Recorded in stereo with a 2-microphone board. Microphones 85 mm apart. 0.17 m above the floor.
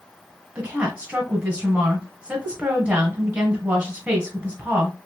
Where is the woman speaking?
15° right (ahead or behind), 1.3 m.